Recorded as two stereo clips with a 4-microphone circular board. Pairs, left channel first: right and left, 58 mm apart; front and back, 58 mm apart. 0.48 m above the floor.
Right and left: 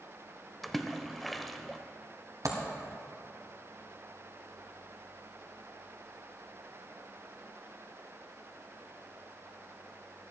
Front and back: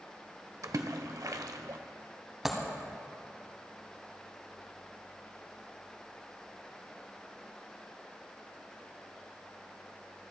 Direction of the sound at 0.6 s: Straight behind.